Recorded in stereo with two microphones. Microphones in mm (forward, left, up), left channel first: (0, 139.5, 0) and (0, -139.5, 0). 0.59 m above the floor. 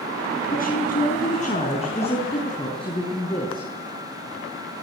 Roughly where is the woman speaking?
Left.